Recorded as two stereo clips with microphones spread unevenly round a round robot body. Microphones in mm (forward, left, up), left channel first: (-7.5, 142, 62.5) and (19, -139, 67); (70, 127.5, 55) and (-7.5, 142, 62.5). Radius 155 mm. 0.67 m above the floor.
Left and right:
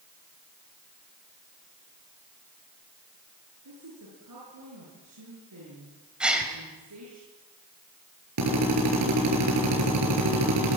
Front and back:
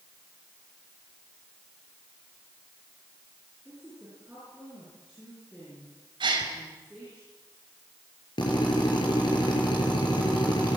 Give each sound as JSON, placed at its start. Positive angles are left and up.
{"t": 3.6, "sound": "a woman speaking", "azimuth_deg": -110, "distance_m": 9.5}
{"t": 6.2, "sound": "a gasp", "azimuth_deg": -170, "distance_m": 4.0}
{"t": 8.4, "sound": "a drill", "azimuth_deg": -55, "distance_m": 6.5}